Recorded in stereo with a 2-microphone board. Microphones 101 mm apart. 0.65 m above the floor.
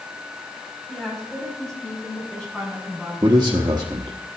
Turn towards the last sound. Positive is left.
turn(degrees=-45)  # may be behind; listen again after turning